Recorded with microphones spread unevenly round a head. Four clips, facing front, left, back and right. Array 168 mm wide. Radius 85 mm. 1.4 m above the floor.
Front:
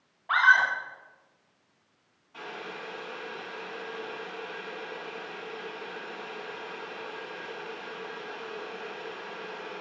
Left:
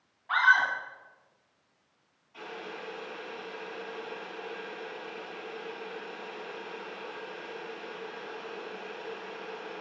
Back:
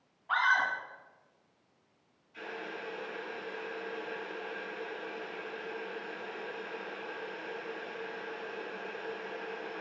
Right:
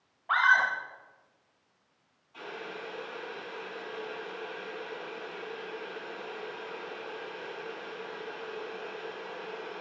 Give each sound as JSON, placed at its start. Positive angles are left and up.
{"t": 0.3, "sound": "a scream", "azimuth_deg": -40, "distance_m": 7.0}
{"t": 2.3, "sound": "boiling", "azimuth_deg": 0, "distance_m": 9.0}